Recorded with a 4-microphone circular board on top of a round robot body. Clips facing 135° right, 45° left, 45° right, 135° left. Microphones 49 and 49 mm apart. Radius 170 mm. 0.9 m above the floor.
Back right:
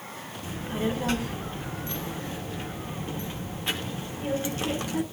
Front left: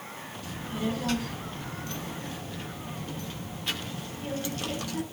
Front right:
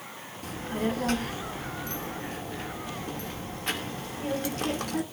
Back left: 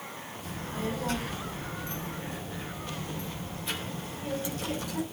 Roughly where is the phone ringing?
I don't hear a phone ringing.